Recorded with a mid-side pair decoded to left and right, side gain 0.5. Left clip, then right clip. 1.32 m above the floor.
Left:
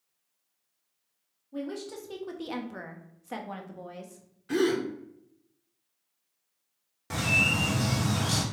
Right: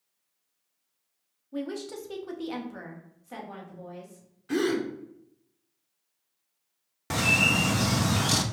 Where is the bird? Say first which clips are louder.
Right 2 dB; 50° right, 0.6 m.